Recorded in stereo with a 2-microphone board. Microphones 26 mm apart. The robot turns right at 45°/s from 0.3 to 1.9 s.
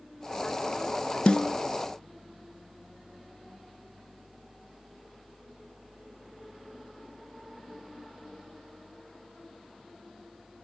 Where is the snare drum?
35° left (ahead or behind), 0.9 m; by 1.5 s 40° left (ahead or behind), 0.9 m.